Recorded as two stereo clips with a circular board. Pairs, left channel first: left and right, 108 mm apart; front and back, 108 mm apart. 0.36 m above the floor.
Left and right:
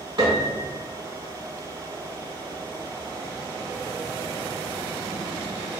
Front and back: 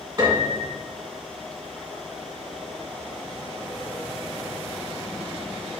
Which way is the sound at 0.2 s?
125° right.